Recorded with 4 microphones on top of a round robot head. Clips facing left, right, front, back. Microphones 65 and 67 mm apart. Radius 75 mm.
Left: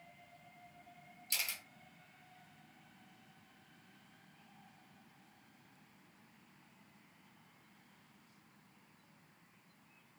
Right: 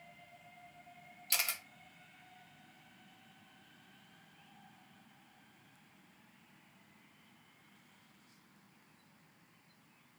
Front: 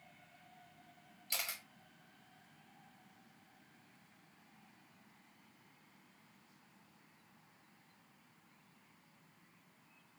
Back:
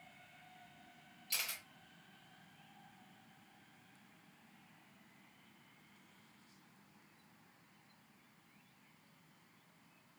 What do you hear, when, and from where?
1.3 s a camera shutter: 65° right, 1.0 m